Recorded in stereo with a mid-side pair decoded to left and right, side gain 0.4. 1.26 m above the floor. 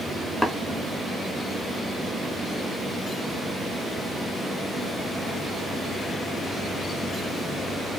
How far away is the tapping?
About 2.5 m.